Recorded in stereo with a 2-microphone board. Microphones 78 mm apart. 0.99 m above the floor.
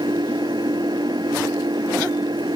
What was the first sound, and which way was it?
An engine running, 65° right (ahead or behind).